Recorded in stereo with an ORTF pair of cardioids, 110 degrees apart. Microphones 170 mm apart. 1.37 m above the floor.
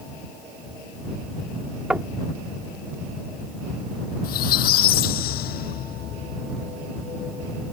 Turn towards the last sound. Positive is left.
turn(degrees=70)